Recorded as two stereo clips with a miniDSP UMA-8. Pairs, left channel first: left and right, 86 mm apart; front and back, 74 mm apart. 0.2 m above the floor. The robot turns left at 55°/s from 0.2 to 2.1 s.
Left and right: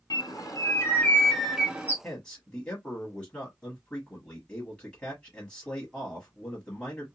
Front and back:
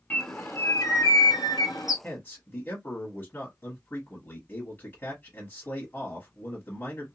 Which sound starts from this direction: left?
A bird, at 0.1 s.